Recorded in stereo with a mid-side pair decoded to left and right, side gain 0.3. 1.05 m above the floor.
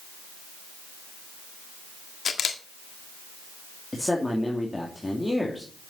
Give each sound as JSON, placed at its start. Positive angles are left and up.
{"t": 2.2, "sound": "a camera shutter", "azimuth_deg": 70, "distance_m": 1.7}
{"t": 3.9, "sound": "a man speaking", "azimuth_deg": 20, "distance_m": 2.5}